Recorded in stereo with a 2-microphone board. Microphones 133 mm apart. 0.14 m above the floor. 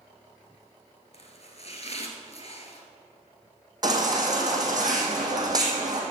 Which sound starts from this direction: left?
Chopping, at 1.1 s.